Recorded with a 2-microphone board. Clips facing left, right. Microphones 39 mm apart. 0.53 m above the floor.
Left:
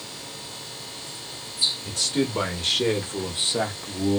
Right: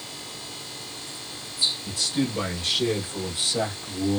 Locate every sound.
1.9 s a man speaking: 60° left (ahead or behind), 1.6 m; by 4.2 s 5° left (ahead or behind), 0.8 m